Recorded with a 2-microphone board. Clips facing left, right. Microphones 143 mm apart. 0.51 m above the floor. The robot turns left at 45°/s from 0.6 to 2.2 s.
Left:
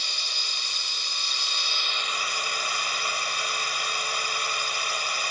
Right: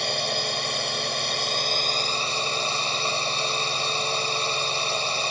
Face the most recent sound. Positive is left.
turn(degrees=-150)